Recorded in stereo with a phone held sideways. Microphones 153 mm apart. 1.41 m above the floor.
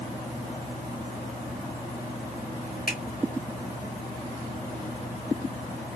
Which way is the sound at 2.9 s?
70° left (ahead or behind).